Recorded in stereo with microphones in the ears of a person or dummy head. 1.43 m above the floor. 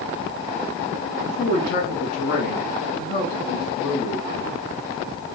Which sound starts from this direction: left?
A man speaking, at 1.3 s.